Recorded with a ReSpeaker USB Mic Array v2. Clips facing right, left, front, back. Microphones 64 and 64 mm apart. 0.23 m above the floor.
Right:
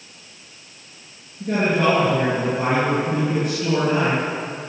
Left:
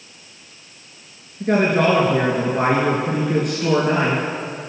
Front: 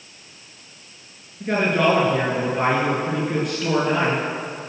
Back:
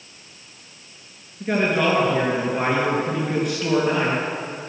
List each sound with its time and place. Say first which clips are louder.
1.4 s a man speaking: left 3 dB, front 1 dB; 85° left, 3.5 m